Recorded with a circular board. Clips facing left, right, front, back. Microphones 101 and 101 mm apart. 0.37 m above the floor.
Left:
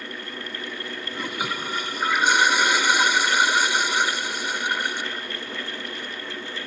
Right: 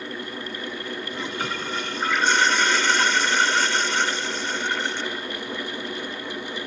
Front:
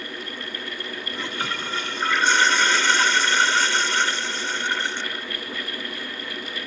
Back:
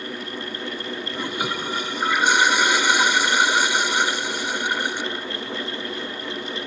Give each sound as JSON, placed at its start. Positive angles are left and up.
{"t": 1.1, "sound": "a toilet flushing", "azimuth_deg": 140}